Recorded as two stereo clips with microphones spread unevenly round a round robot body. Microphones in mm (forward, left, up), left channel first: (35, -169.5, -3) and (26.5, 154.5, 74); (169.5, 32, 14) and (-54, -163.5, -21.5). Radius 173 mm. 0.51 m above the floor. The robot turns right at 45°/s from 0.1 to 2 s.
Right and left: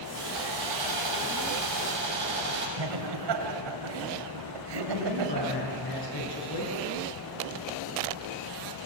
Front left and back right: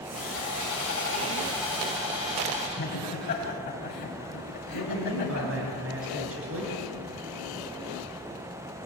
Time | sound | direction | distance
0.1 | sawing | 65° left | 6.5 m
2.8 | laughter | 105° left | 3 m
4.7 | a man speaking | 100° right | 6.5 m